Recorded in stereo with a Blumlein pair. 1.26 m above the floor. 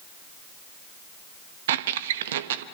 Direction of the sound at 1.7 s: 55° right.